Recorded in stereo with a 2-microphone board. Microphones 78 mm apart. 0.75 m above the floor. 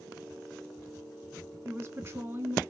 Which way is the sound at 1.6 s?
35° right (ahead or behind).